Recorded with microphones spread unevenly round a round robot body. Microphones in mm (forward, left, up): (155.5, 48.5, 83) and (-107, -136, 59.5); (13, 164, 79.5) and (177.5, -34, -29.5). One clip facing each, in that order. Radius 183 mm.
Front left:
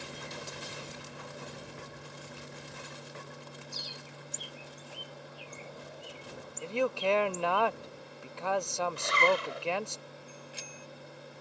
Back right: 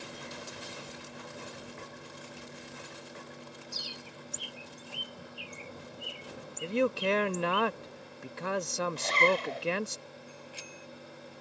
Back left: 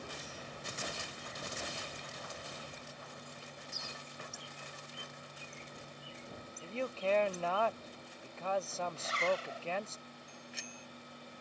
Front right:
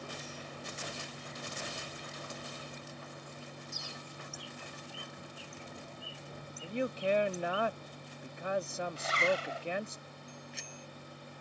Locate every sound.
3.7 s a bird: 90° right
6.6 s a man speaking: 90° right
9.0 s a zipper: 40° right
10.3 s a bicycle bell: 40° left